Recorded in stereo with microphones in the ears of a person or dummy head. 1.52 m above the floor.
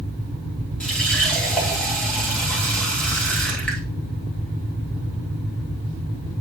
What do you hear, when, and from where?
0.8 s a running tap: 5° left (ahead or behind), 1.7 m